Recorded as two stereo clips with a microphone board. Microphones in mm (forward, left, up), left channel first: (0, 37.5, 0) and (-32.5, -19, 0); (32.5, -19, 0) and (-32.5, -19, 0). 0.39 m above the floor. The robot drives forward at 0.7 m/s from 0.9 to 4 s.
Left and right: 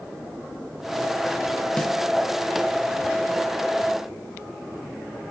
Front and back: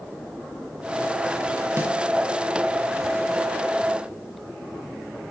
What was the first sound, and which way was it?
A snare drum, 135° left.